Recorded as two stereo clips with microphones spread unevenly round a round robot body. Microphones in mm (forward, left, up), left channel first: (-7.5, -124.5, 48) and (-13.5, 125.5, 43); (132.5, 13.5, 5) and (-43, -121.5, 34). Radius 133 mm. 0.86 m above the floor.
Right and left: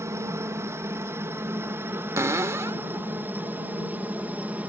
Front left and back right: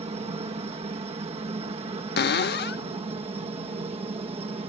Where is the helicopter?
160° left; by 4.7 s 170° left.